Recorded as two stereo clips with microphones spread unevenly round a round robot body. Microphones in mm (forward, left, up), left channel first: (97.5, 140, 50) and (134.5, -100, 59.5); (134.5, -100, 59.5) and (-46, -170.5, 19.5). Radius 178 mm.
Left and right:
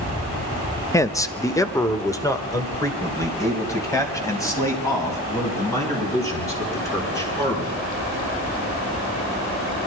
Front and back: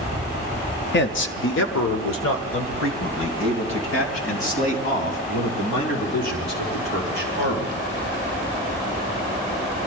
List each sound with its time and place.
0.9 s a man speaking: 25° left, 0.9 m; by 7.8 s 20° left, 7.5 m